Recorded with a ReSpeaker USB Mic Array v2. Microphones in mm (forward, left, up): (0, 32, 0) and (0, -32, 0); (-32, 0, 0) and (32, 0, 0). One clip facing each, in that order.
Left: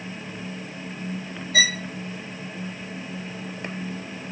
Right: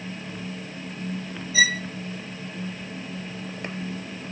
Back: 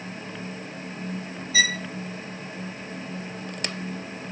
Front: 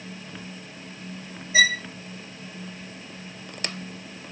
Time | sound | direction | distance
1.5 | a violin | 60° left | 2 m